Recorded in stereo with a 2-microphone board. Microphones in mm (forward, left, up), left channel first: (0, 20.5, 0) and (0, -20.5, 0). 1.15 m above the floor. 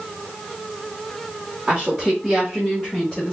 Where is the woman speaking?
10° right (ahead or behind), 1.3 m; by 3.3 s 25° left (ahead or behind), 1.9 m.